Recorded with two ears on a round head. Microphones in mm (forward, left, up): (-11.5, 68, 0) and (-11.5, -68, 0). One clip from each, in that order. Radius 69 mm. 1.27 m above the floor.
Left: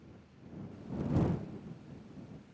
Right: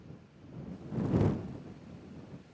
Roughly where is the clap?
No clap in this recording.